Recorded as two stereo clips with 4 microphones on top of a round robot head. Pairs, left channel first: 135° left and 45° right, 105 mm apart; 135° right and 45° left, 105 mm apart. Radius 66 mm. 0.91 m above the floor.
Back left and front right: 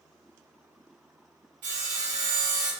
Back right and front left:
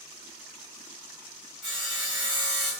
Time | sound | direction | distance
1.6 | sawing | 40° right | 1.8 m